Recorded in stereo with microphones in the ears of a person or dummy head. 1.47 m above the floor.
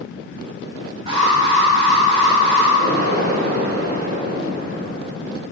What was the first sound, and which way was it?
An alarm, 30° right (ahead or behind).